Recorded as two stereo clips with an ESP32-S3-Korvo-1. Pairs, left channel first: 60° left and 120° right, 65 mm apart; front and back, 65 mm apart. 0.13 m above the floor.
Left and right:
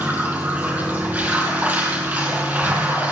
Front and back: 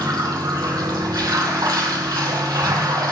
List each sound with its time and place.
0.0 s running water: 175° left, 2.5 m